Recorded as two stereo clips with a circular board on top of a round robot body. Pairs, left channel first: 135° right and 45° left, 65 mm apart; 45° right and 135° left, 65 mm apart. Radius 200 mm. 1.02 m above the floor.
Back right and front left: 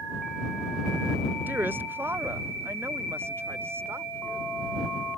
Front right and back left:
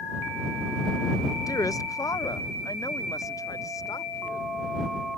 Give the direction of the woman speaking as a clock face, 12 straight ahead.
1 o'clock.